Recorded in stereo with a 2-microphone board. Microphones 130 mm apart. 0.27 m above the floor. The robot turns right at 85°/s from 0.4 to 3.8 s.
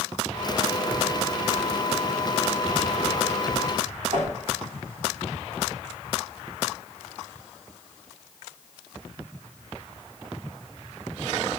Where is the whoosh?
75° right (ahead or behind), 8 m.